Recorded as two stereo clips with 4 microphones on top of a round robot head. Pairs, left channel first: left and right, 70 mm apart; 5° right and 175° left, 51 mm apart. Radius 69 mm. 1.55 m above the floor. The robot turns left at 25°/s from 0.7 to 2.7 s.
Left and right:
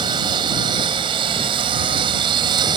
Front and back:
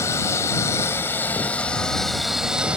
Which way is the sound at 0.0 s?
60° right.